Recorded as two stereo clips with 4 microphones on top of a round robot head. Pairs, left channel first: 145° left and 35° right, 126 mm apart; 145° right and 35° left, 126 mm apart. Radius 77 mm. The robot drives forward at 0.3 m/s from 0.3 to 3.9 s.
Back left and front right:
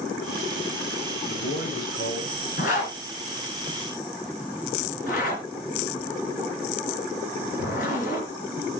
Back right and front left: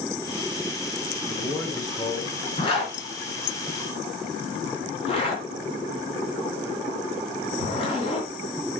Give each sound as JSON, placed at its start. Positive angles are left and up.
{"t": 1.3, "sound": "a man speaking", "azimuth_deg": 145, "distance_m": 4.0}
{"t": 2.6, "sound": "a zipper", "azimuth_deg": 165, "distance_m": 4.0}